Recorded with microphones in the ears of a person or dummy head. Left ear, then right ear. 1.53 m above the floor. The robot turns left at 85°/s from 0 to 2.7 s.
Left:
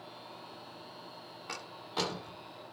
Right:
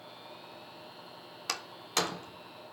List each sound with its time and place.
1.5 s a door slam: 70° right (ahead or behind), 3 m; by 2.5 s 20° right (ahead or behind), 3 m